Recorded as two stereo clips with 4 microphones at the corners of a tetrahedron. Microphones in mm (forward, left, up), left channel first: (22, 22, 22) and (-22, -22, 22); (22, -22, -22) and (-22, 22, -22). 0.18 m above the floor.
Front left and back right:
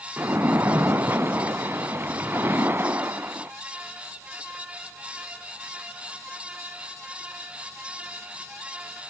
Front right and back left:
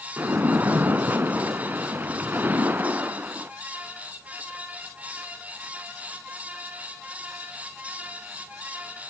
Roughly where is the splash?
Behind.